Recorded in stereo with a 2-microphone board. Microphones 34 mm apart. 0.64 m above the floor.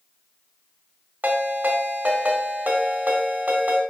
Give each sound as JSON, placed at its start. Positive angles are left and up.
{"t": 1.2, "sound": "a ringtone", "side_deg": -60, "distance_m": 1.7}